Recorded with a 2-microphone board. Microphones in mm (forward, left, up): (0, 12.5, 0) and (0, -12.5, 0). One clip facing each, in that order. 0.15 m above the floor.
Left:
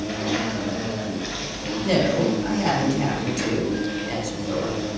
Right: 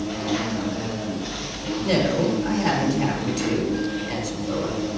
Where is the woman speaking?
10° left (ahead or behind), 4.5 m.